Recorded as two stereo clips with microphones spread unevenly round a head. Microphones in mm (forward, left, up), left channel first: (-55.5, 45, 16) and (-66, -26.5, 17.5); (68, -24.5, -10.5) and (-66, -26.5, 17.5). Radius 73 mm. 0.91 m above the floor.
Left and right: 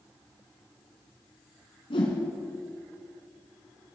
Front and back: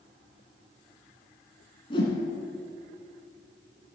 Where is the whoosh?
65° left, 2.5 m.